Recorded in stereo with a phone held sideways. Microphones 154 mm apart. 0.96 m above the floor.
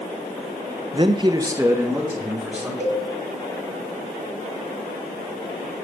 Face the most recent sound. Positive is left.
turn(degrees=-65)  # may be behind; listen again after turning